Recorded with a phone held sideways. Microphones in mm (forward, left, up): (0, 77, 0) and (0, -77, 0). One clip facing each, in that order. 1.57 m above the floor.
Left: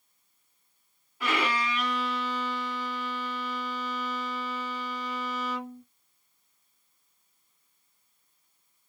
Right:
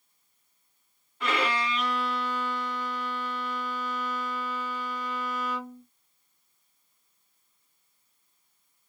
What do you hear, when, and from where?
1.2 s a violin: 5° left (ahead or behind), 1.7 m